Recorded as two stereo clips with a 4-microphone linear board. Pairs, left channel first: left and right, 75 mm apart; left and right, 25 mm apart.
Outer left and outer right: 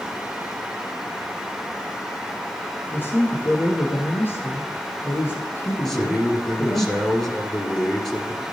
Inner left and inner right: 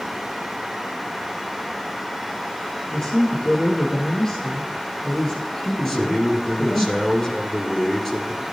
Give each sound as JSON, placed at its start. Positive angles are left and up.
{"t": 2.9, "sound": "a man speaking", "side_deg": 25, "distance_m": 5.5}
{"t": 5.8, "sound": "a man speaking", "side_deg": 5, "distance_m": 2.5}